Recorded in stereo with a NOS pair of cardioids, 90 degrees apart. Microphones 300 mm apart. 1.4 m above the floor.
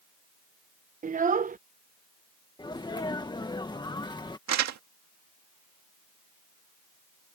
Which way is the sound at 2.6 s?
15° left.